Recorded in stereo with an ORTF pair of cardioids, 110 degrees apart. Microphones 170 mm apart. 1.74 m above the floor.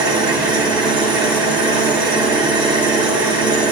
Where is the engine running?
25° right, 1.4 m.